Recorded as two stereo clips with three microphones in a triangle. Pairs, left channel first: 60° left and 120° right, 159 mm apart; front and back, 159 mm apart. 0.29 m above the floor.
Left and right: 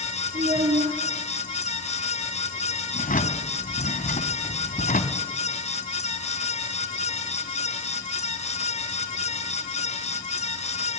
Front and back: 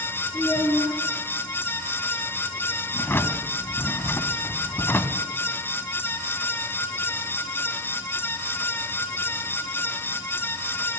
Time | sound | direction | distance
0.3 | a child speaking | 95° right | 3.5 m
2.9 | a drawer | 75° left | 1.3 m